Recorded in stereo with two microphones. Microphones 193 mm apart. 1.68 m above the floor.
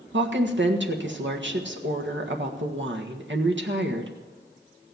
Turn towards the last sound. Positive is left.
turn(degrees=-75)  # may be behind; listen again after turning